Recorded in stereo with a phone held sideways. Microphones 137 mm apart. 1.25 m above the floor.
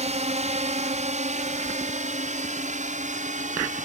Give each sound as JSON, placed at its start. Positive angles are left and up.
{"t": 0.0, "sound": "a drone", "side_deg": -60}